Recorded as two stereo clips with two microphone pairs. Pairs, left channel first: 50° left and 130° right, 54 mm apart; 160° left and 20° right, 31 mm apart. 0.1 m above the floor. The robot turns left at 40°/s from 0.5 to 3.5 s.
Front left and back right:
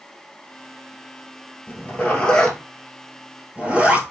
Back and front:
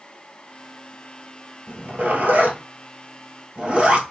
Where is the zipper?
5° left, 1.3 m; by 4.0 s 70° right, 1.3 m.